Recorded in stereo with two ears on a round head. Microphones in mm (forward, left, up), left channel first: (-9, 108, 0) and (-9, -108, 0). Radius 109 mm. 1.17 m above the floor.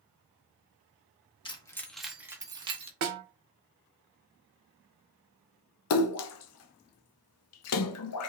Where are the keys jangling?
20° left (ahead or behind), 1.0 m; by 2.9 s 25° right (ahead or behind), 1.3 m.